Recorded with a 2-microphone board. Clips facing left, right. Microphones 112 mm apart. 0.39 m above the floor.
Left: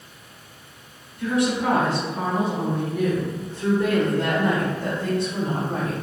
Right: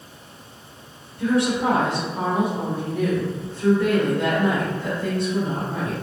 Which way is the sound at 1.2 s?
35° right (ahead or behind).